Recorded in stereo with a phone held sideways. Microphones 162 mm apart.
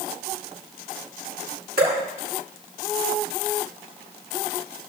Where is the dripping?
75° right (ahead or behind), 6 m.